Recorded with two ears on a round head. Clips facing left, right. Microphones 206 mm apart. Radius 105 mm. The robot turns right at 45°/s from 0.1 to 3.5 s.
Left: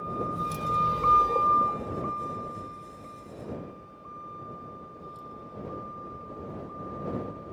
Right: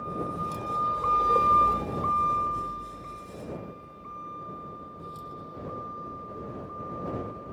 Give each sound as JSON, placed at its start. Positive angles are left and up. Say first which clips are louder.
{"t": 0.0, "sound": "a vehicle", "louder": "even", "side_deg": 5}